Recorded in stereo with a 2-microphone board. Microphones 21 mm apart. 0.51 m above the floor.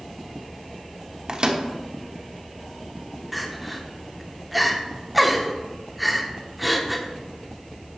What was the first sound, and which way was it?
A microwave, 40° right (ahead or behind).